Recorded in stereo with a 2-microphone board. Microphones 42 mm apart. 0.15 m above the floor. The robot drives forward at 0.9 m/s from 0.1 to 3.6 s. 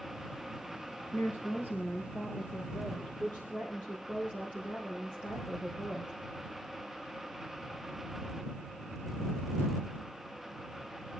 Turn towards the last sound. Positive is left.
turn(degrees=35)  # may be behind; listen again after turning